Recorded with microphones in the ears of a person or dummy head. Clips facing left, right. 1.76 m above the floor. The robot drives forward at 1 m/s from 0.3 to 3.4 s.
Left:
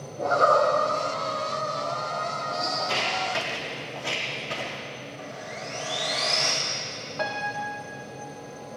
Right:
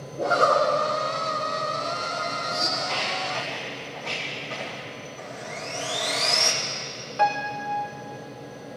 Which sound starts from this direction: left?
Footsteps, at 2.8 s.